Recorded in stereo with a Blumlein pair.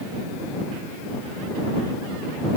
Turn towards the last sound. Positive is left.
No sound to turn to.